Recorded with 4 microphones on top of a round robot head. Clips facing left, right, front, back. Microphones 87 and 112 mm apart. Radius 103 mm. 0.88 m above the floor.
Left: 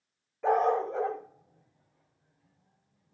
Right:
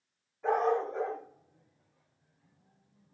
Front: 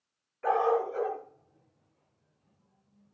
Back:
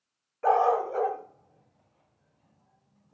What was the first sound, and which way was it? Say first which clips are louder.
A dog barking: left 3 dB, back 3 dB; 125° left.